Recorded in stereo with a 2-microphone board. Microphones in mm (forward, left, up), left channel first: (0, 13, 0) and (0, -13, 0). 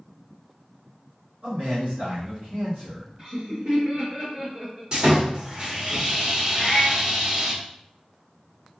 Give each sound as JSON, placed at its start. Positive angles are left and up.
{"t": 1.4, "sound": "a man speaking", "side_deg": -70, "distance_m": 1.7}
{"t": 3.2, "sound": "laughter", "side_deg": -35, "distance_m": 1.0}
{"t": 4.9, "sound": "sawing", "side_deg": -40, "distance_m": 1.0}
{"t": 6.5, "sound": "a cat meowing", "side_deg": -45, "distance_m": 1.3}